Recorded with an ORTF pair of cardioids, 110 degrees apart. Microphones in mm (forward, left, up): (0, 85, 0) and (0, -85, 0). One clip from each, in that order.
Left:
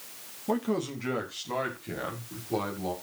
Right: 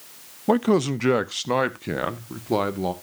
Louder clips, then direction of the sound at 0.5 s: Right 9 dB; 45° right.